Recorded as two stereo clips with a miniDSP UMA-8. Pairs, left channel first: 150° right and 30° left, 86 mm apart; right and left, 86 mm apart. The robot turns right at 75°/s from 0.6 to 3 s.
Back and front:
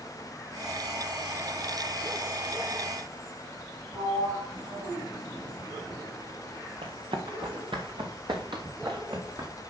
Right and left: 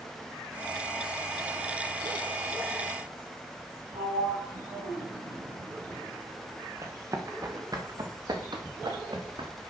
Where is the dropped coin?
I don't hear a dropped coin.